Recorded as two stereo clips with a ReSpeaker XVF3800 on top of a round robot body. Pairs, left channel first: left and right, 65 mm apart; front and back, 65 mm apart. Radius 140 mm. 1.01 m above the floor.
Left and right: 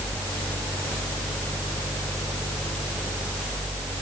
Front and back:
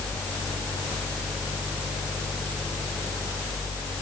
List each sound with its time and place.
Only background noise.